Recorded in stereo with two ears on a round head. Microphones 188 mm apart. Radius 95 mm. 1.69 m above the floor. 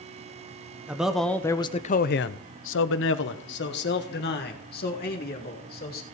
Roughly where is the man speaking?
Centre.